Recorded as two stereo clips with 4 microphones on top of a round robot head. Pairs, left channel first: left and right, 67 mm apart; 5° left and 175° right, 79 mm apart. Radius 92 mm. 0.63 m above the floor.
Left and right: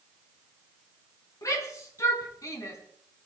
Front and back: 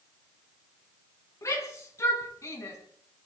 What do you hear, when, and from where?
1.4 s a shout: 55° left, 5.5 m